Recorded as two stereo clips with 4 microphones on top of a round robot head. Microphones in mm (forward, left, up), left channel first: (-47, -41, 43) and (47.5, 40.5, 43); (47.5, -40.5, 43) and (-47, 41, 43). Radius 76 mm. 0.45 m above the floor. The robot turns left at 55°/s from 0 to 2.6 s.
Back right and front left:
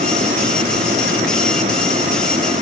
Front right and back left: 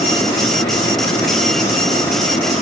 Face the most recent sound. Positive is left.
No sound to turn to.